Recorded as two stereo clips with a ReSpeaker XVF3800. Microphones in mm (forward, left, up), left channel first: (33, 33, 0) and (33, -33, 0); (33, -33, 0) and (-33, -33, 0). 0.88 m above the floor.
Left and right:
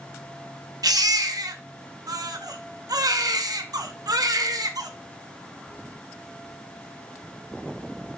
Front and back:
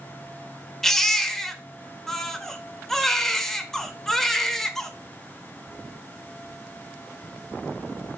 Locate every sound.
0.8 s a baby crying: 85° right, 0.5 m